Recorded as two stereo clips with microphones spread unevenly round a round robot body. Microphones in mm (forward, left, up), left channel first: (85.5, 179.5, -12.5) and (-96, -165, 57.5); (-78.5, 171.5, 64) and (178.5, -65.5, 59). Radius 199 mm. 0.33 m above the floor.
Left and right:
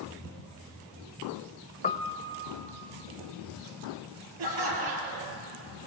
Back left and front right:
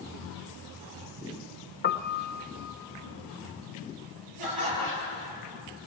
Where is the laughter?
85° right, 7 m.